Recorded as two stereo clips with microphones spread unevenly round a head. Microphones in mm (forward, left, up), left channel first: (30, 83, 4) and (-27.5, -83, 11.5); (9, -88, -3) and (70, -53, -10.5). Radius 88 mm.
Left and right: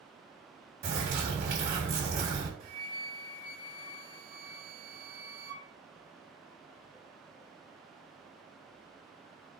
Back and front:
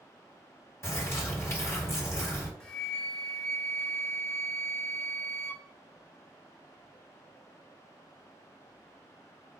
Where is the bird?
115° right, 1.6 m.